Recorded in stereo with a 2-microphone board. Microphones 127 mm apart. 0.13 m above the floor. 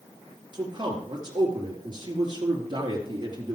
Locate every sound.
0.5 s a man speaking: 35° right (ahead or behind), 3 m